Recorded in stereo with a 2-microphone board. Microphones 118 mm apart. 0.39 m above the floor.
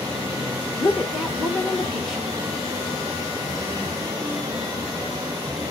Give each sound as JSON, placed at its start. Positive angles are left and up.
{"t": 0.8, "sound": "a woman speaking", "side_deg": 0, "distance_m": 1.1}